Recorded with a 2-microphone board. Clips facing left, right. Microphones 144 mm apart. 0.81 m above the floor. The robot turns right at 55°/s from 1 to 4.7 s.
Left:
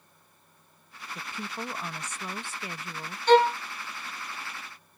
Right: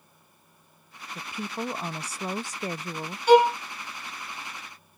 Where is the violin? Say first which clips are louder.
Right 2 dB; 10° right (ahead or behind); by 3.6 s 20° right (ahead or behind).